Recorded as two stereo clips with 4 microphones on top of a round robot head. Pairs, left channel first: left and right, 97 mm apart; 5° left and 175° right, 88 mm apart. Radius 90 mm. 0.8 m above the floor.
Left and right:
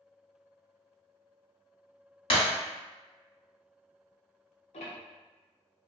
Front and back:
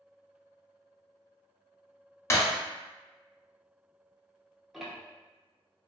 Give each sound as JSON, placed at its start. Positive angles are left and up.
{"t": 2.3, "sound": "breaking glass", "azimuth_deg": 65, "distance_m": 1.0}
{"t": 4.7, "sound": "ticking", "azimuth_deg": 100, "distance_m": 0.5}